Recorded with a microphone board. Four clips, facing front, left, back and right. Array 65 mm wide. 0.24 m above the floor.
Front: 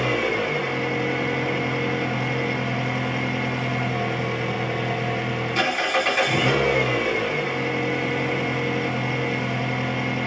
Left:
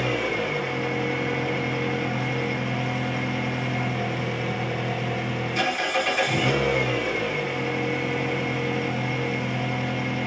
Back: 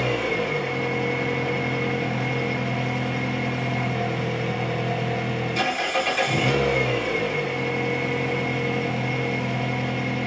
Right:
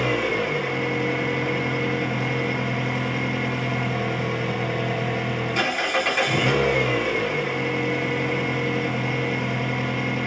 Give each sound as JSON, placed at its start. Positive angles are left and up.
{"t": 0.0, "sound": "an engine running", "azimuth_deg": -40, "distance_m": 1.8}